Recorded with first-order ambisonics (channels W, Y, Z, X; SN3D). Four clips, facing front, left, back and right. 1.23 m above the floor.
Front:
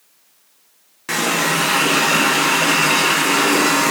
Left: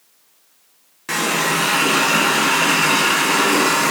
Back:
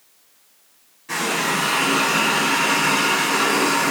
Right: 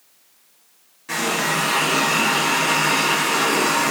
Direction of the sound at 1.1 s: 40° left.